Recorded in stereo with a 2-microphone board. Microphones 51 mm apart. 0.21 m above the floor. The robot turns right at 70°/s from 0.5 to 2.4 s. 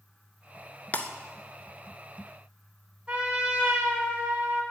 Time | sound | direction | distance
0.9 | breaking glass | 35° left (ahead or behind) | 0.6 m
3.1 | a trumpet | 25° right (ahead or behind) | 1.4 m